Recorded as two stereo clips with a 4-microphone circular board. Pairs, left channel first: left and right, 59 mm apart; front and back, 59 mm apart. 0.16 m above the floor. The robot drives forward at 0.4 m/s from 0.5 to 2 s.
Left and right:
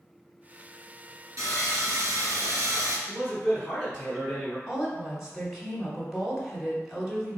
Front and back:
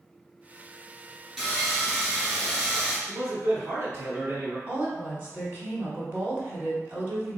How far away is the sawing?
About 1.8 m.